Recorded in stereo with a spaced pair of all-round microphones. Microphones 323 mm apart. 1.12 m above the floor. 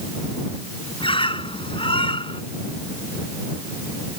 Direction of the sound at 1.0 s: 15° left (ahead or behind).